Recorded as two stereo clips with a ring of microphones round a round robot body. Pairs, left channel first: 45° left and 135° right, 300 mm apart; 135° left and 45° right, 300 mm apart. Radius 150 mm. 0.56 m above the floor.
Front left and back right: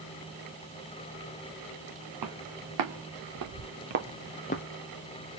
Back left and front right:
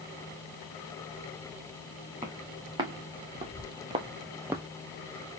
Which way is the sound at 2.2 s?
120° right.